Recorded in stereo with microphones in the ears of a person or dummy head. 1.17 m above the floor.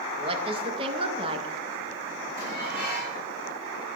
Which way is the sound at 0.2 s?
35° right (ahead or behind).